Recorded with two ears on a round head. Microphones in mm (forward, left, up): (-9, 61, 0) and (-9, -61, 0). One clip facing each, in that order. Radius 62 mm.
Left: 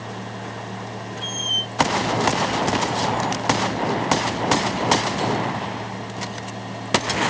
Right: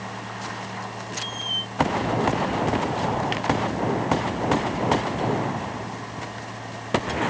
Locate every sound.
1.2 s a squeak: 50° left (ahead or behind)